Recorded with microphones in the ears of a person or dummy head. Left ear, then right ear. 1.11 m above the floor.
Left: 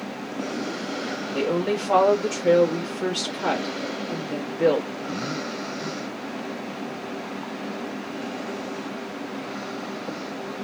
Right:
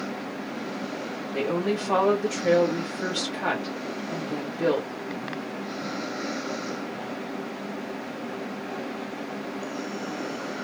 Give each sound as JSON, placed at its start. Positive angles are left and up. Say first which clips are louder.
{"t": 1.3, "sound": "a woman speaking", "louder": "left 2 dB", "side_deg": -20, "distance_m": 1.4}